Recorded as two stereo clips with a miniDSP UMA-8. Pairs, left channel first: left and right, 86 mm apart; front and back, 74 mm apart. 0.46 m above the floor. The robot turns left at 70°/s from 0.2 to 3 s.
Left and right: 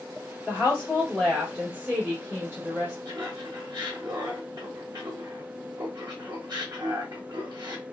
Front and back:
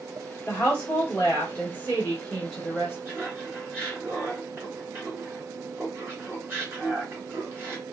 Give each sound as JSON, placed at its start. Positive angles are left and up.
{"t": 0.5, "sound": "a woman speaking", "azimuth_deg": 55, "distance_m": 1.4}
{"t": 3.0, "sound": "laughter", "azimuth_deg": -125, "distance_m": 1.4}